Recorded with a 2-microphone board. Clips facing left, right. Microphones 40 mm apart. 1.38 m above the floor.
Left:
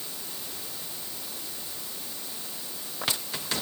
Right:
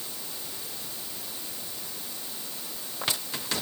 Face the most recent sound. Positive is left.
No sound to turn to.